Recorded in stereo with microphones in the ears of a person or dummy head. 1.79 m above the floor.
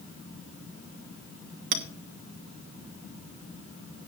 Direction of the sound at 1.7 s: 60° right (ahead or behind).